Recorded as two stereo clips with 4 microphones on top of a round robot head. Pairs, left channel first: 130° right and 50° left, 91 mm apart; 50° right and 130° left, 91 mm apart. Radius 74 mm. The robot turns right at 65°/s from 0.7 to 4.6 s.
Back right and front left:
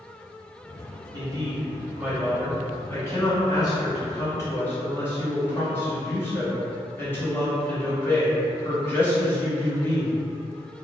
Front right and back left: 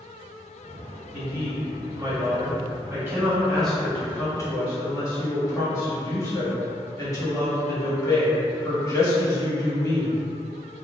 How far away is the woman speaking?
About 1.3 m.